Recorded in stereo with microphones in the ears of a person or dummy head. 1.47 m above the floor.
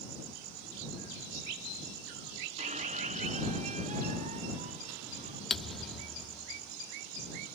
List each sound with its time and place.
2.6 s a squeak: 35° right (ahead or behind)
5.5 s a thud: centre (ahead or behind)